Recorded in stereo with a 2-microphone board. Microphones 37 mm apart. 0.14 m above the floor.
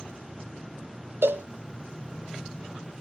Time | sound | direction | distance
1.2 | a cowbell | 75° right (ahead or behind) | 0.7 m